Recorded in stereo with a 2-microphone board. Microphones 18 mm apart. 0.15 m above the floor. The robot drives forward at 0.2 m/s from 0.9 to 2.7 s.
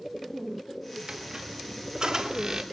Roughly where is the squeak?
Right.